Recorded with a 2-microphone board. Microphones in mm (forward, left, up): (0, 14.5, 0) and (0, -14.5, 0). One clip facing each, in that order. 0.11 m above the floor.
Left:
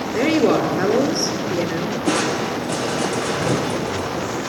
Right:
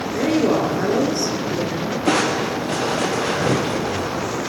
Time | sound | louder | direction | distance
0.1 | a woman speaking | left 2 dB | 30° left (ahead or behind) | 1.7 m
2.1 | crushing | right 2 dB | 20° right (ahead or behind) | 1.8 m